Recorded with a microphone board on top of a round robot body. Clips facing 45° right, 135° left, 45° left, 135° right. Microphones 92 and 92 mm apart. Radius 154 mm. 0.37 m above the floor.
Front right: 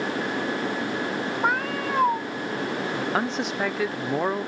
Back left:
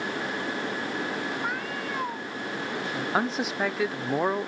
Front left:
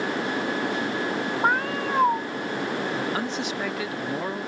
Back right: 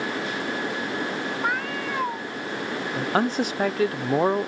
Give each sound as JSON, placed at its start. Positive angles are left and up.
{"t": 1.4, "sound": "a cat meowing", "azimuth_deg": -10}
{"t": 3.0, "sound": "a man speaking", "azimuth_deg": -140}